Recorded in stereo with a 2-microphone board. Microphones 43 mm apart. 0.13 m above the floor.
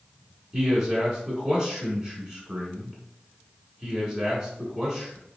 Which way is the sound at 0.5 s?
20° right (ahead or behind).